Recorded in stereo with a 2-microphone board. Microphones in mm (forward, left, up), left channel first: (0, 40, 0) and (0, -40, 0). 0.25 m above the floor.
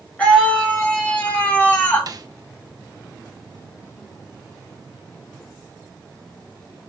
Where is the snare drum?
55° right (ahead or behind), 0.7 m.